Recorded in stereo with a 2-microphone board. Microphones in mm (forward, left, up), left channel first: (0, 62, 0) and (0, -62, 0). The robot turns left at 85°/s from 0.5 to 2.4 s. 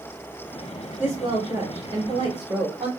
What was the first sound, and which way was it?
A woman speaking, 20° right.